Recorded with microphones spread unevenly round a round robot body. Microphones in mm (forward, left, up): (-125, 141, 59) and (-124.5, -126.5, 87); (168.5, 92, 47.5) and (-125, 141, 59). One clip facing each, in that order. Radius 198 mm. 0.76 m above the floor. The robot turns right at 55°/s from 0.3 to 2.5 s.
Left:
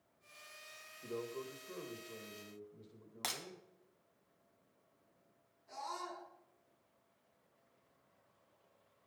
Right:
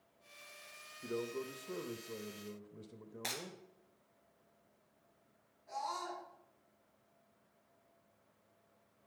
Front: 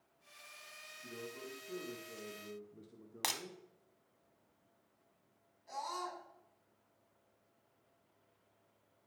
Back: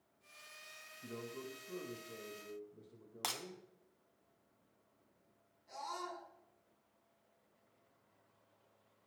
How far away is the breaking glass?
About 1.8 m.